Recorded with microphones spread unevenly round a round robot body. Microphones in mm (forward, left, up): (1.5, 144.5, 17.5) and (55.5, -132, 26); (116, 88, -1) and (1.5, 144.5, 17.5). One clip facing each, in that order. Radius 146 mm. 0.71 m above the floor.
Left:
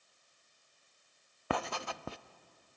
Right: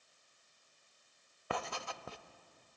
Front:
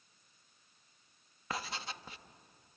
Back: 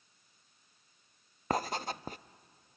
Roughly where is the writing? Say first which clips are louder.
Left 5 dB, back 8 dB; left.